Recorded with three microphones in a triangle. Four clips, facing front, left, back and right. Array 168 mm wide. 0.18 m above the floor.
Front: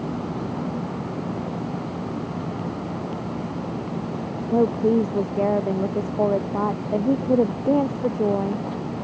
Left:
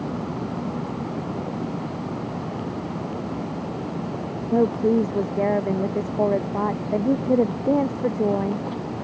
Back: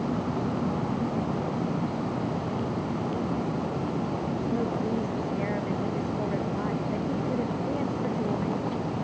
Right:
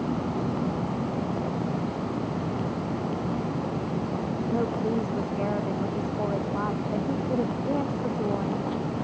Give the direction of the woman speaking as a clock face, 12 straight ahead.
11 o'clock.